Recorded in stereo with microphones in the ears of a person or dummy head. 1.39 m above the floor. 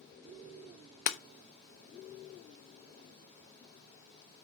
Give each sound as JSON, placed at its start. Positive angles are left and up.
{"t": 1.1, "sound": "breaking glass", "side_deg": 50, "distance_m": 0.8}